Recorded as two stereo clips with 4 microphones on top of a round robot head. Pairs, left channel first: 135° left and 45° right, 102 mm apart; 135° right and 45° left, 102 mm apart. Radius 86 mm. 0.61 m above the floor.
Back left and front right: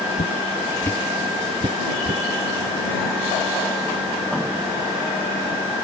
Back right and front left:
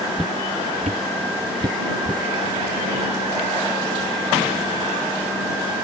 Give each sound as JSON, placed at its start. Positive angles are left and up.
{"t": 0.2, "sound": "footsteps", "azimuth_deg": 135}